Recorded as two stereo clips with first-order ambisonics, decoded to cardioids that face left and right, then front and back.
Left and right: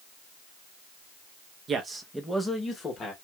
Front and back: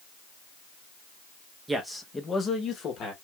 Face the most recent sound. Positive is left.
turn(degrees=35)